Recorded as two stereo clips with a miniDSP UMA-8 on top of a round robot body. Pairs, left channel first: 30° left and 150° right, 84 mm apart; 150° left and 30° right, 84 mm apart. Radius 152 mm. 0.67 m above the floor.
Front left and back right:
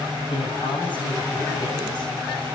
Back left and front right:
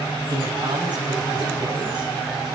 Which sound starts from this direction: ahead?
A man speaking, at 0.3 s.